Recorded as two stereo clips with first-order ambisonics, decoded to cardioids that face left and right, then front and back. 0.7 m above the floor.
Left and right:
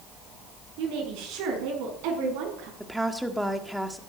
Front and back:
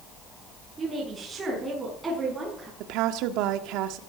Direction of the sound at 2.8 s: 175° right.